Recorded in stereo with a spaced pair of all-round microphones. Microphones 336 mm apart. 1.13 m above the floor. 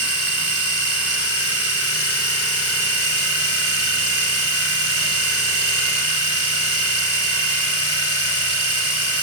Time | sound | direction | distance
0.0 | a machine running | 40° left (ahead or behind) | 3 m